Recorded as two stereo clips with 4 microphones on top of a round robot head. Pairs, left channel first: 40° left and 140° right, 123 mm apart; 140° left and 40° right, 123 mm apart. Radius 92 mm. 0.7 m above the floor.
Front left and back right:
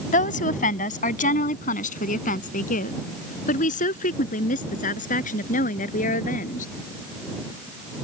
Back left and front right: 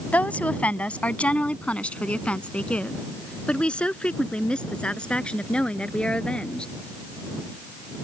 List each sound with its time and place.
0.1 s a woman speaking: 60° left; by 6.7 s 55° left